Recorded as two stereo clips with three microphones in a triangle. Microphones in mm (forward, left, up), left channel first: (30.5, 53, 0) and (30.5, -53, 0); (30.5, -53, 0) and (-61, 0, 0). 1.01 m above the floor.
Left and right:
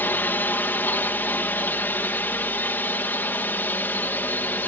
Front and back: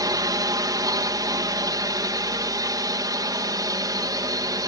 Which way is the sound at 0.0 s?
150° left.